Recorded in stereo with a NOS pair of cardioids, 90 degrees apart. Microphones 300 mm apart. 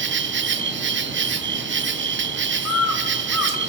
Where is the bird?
70° left, 2 m.